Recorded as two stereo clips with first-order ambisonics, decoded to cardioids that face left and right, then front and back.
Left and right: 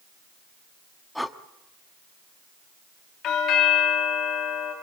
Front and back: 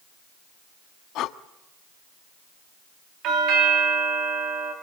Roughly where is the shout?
No shout in this recording.